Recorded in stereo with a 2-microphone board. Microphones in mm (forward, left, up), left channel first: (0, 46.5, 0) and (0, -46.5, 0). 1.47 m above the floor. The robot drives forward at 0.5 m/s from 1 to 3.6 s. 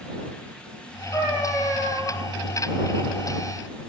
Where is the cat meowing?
70° left (ahead or behind), 3 m; by 2.1 s 75° left (ahead or behind), 3 m.